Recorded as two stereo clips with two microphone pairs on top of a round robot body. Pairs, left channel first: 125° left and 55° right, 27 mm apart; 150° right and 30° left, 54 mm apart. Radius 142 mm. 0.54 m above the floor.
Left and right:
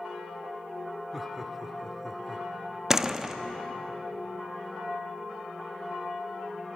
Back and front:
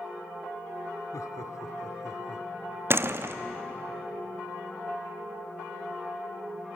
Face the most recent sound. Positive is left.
turn(degrees=20)